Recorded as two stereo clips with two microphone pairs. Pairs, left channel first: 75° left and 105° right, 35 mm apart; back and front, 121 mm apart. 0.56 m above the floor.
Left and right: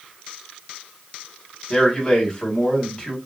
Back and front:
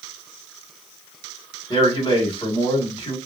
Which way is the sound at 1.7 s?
135° left.